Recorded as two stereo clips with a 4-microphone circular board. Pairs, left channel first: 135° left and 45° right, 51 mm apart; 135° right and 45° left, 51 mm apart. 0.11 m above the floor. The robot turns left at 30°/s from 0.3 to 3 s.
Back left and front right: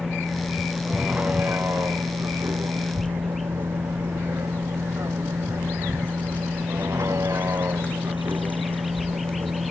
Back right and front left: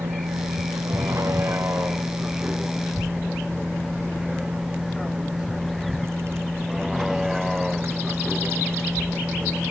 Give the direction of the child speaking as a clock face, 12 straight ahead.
9 o'clock.